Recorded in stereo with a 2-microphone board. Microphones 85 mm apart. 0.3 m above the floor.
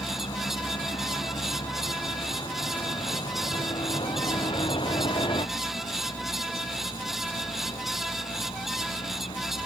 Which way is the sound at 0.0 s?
60° left (ahead or behind).